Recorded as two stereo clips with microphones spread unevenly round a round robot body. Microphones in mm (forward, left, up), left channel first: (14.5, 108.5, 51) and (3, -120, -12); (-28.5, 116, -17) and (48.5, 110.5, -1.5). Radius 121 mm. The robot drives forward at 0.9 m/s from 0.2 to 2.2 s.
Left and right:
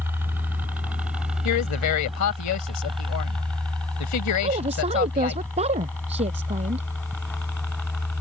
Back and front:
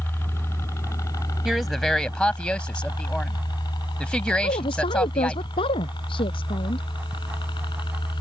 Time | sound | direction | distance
0.0 | a helicopter | 140° right | ?
1.4 | a woman speaking | 80° left | ?
4.4 | a woman speaking | 160° right | ?